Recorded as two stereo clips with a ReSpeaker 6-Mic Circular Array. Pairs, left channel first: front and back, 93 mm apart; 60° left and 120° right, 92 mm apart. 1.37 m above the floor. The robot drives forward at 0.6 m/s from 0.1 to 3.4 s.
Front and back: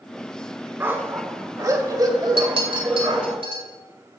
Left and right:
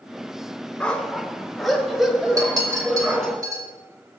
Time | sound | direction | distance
0.8 | a dog barking | 130° left | 1.2 m
2.4 | a clink | 170° right | 2.5 m